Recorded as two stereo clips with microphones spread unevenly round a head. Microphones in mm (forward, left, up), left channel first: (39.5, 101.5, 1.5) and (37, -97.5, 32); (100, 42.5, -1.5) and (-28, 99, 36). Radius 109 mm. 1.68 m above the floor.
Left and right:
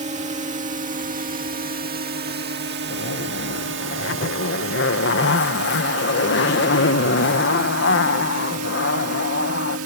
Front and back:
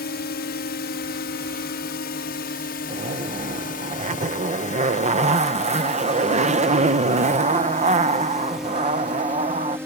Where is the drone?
35° right; by 9.9 s 125° right.